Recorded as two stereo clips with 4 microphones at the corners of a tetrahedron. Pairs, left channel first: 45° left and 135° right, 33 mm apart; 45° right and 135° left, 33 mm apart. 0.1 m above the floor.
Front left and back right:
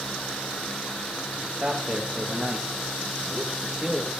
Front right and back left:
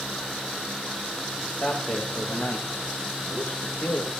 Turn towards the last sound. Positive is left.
turn(degrees=-70)